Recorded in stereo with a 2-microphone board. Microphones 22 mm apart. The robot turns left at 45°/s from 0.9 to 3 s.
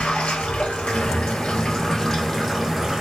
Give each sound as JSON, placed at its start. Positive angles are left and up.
{"t": 0.0, "sound": "running water", "azimuth_deg": 70, "distance_m": 1.1}